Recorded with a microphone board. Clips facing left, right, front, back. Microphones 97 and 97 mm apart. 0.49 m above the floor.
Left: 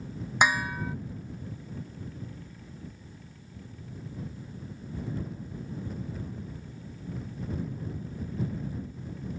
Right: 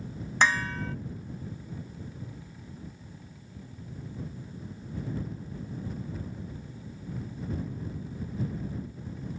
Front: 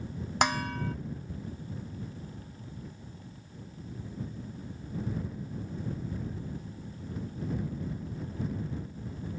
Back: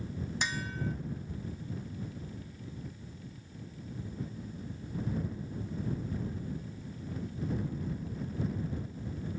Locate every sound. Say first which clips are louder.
0.4 s dishes clattering: left 1 dB, front 9 dB; 15° left